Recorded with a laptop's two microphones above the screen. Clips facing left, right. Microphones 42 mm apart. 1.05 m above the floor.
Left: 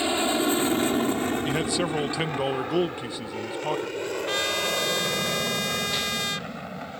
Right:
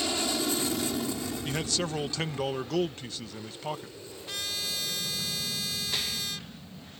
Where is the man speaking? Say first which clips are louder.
Left 6 dB; 15° left (ahead or behind).